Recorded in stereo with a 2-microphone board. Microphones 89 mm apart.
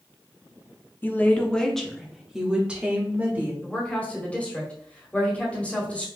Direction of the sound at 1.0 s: 25° left (ahead or behind).